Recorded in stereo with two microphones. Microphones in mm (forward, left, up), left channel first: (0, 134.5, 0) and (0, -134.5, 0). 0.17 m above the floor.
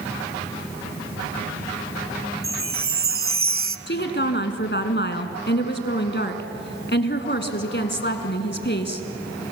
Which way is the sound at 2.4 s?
50° right (ahead or behind).